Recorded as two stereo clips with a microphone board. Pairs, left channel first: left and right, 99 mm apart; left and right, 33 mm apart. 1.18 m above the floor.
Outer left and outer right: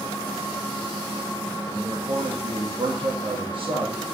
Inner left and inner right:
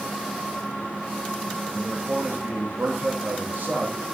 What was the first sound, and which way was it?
A man speaking, 60° right (ahead or behind).